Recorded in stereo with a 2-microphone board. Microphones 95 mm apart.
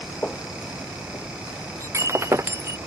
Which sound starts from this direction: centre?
Footsteps, at 0.2 s.